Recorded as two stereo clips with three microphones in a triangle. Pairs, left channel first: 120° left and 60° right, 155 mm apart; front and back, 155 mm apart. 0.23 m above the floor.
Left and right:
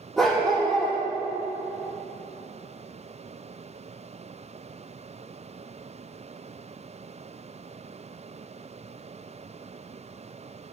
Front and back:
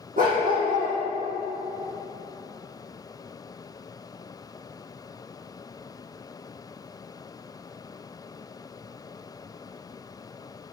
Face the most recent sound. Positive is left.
turn(degrees=-150)